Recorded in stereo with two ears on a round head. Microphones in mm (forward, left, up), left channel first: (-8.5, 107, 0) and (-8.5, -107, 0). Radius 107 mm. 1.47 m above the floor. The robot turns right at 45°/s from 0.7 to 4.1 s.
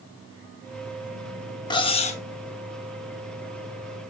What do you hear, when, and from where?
1.7 s cutlery clinking: 20° left (ahead or behind), 0.9 m; by 2.2 s 30° left (ahead or behind), 0.9 m